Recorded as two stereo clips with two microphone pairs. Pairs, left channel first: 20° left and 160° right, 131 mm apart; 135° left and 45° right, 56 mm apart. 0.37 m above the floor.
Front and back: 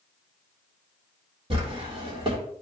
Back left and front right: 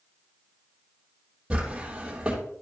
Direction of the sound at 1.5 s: 115° right.